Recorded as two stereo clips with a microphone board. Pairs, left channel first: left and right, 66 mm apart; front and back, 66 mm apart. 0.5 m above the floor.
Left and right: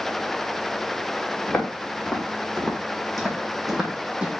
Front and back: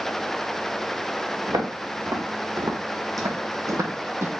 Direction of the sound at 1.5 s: 170° left.